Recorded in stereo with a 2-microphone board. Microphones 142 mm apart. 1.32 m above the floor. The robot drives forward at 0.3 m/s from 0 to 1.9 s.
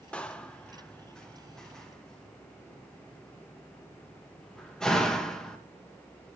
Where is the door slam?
5° left (ahead or behind), 0.5 m.